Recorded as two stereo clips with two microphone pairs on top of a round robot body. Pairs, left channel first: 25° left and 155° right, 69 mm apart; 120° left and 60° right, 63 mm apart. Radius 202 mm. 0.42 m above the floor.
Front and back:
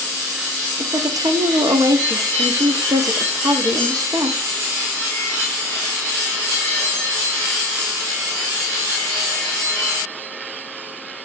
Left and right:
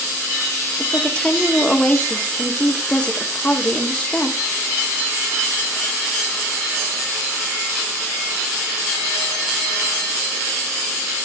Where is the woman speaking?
165° right, 1.5 m.